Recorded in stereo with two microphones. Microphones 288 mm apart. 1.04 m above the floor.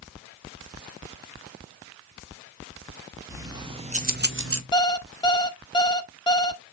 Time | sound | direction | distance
3.3 | keys jangling | 10° right (ahead or behind) | 0.9 m
4.7 | an alarm clock | 15° left (ahead or behind) | 0.5 m